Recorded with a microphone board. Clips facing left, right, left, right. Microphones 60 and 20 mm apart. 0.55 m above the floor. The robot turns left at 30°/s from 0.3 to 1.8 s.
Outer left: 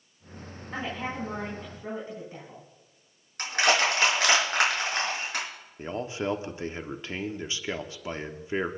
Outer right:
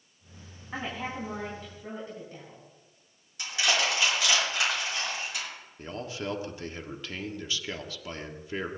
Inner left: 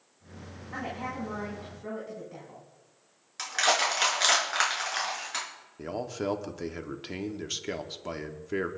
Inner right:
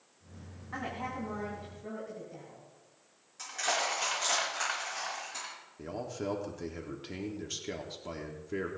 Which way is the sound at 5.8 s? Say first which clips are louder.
Outer left 5 dB, inner left 5 dB; 25° left (ahead or behind).